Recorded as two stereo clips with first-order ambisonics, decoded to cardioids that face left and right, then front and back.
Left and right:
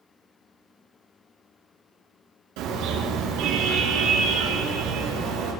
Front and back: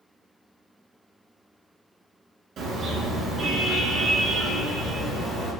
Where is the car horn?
115° right, 7 m; by 5.5 s 85° right, 8 m.